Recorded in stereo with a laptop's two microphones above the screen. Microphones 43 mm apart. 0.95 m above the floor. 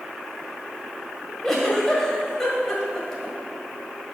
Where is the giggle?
5° left (ahead or behind), 1.5 m.